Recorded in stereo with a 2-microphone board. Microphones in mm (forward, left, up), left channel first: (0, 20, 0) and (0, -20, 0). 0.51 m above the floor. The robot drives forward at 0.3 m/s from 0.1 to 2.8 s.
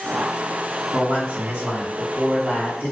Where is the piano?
No piano in this recording.